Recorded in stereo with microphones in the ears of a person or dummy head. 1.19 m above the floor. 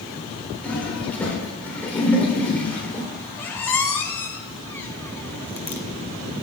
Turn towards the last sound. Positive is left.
turn(degrees=15)  # may be behind; listen again after turning